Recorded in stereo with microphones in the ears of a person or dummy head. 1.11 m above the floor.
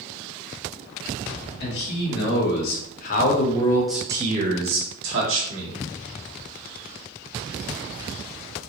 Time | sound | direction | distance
1.6 | a man speaking | 65° left (ahead or behind) | 1.6 m